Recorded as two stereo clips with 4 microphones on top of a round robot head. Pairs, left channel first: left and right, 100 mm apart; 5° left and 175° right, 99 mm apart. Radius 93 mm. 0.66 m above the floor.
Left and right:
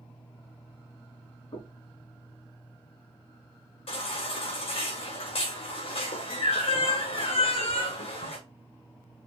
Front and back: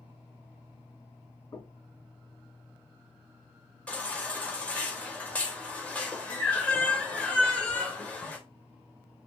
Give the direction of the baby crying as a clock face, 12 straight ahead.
9 o'clock.